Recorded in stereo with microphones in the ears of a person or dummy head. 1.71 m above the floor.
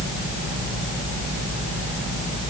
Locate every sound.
Only background noise.